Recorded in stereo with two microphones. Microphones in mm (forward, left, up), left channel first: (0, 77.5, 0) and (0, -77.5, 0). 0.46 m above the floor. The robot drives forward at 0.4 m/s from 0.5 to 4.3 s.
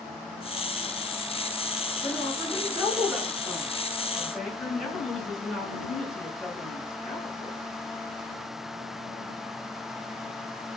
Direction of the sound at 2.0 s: Centre (ahead or behind).